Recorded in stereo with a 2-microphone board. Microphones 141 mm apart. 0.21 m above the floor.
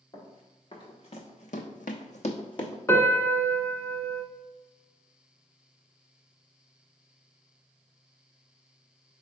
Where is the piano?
20° left (ahead or behind), 0.5 m.